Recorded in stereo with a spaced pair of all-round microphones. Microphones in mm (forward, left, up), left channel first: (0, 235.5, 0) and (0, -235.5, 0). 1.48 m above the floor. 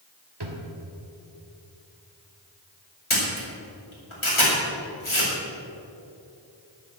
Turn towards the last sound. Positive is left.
turn(degrees=85)